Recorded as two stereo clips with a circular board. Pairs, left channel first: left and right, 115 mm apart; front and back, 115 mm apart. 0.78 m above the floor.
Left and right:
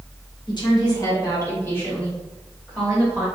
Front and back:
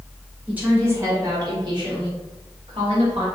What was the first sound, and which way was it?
A woman speaking, 105° left.